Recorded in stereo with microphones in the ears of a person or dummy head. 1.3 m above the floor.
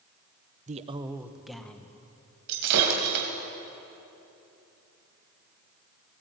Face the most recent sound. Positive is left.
turn(degrees=-60)  # may be behind; listen again after turning